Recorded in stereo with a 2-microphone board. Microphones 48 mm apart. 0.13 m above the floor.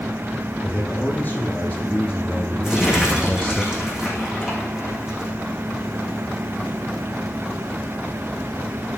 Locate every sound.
0.6 s a man speaking: 25° left (ahead or behind), 5 m; by 3.6 s 20° left (ahead or behind), 1.5 m
2.6 s crumpling: 10° right (ahead or behind), 6.5 m